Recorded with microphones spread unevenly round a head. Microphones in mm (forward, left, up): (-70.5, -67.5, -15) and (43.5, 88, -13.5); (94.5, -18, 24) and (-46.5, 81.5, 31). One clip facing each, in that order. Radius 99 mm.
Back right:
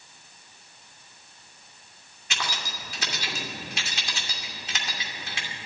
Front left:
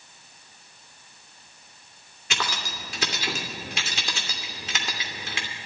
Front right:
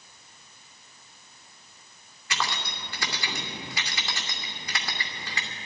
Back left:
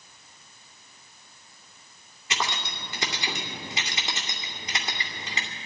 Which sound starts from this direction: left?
Keys jangling, at 2.3 s.